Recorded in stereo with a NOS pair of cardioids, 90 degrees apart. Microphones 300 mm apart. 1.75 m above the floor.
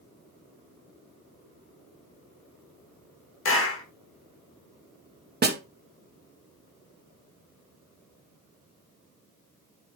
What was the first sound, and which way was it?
A clap, 45° left.